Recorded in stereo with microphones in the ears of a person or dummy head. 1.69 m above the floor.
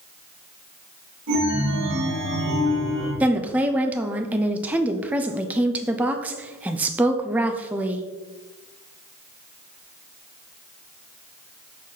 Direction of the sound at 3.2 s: 5° right (ahead or behind).